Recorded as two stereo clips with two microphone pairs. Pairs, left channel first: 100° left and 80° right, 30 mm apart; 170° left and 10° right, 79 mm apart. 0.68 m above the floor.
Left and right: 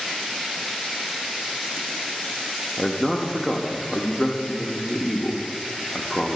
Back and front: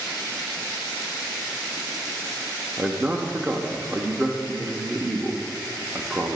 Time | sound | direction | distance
2.8 | a man speaking | 15° left | 0.8 m